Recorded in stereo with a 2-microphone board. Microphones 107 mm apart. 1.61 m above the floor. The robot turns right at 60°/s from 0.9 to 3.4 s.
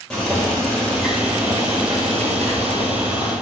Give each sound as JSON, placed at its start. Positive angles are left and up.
{"t": 0.1, "sound": "boiling", "azimuth_deg": 175, "distance_m": 3.5}